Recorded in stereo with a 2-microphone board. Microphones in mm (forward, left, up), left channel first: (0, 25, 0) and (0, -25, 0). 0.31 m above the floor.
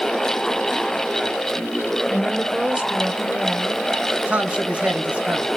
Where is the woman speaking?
10° right (ahead or behind), 0.9 m; by 3.8 s 30° right (ahead or behind), 1.1 m.